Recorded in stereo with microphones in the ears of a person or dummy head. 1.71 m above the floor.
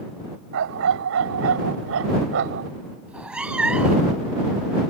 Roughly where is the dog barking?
Right.